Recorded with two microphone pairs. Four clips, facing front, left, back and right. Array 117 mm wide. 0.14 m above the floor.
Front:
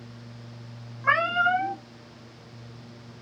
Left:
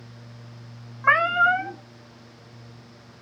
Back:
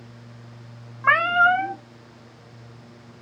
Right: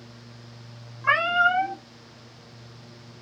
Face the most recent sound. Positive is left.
turn(degrees=150)